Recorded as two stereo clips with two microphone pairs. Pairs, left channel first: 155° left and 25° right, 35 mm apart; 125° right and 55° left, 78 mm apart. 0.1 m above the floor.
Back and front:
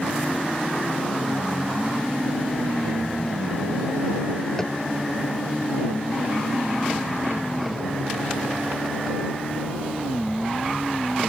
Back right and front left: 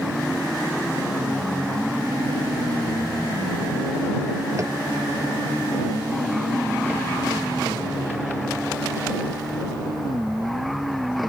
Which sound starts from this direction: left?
Tapping, at 4.6 s.